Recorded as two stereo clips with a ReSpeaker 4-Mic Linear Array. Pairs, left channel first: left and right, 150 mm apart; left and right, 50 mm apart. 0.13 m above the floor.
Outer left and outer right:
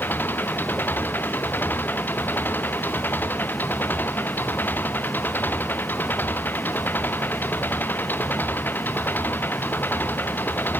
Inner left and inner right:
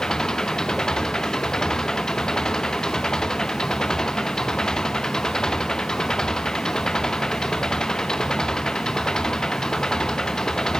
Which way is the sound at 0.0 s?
10° left (ahead or behind).